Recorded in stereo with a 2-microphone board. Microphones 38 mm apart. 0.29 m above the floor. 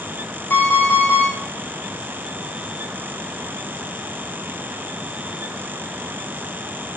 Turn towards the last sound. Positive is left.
turn(degrees=65)  # may be behind; listen again after turning